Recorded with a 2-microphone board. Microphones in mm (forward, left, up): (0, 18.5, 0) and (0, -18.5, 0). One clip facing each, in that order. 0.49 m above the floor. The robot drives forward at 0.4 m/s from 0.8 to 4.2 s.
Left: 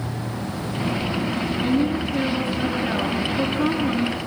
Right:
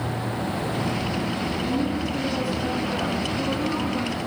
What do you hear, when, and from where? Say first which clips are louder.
1.6 s a woman speaking: left 6 dB; 30° left (ahead or behind), 8 m; by 4.2 s 35° left (ahead or behind), 7.5 m